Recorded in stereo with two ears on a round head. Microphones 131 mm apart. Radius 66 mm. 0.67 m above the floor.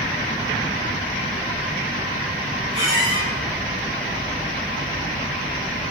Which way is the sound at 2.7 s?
30° left (ahead or behind).